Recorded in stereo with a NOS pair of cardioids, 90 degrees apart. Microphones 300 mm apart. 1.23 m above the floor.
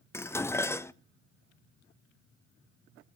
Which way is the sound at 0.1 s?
10° left.